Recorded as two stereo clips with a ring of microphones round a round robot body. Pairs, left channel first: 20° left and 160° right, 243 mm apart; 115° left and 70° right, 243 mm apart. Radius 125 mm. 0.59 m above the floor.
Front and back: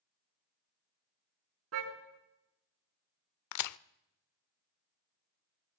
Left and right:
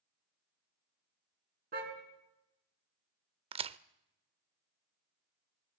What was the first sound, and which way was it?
A car horn, 125° right.